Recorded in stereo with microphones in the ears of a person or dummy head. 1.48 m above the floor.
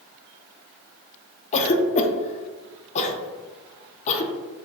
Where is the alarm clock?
No alarm clock in this recording.